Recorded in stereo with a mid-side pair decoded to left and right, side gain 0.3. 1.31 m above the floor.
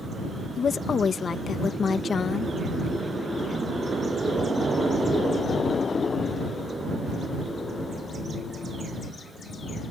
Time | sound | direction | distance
0.6 | a woman speaking | 65° left | ?